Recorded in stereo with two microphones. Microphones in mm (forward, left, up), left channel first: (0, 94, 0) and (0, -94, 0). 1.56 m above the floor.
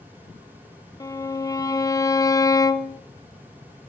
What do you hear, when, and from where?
1.0 s a violin: 20° left (ahead or behind), 0.5 m